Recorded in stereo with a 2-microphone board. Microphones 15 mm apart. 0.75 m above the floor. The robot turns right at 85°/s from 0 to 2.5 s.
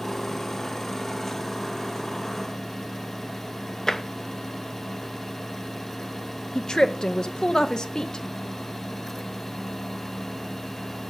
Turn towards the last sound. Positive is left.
turn(degrees=50)  # may be behind; listen again after turning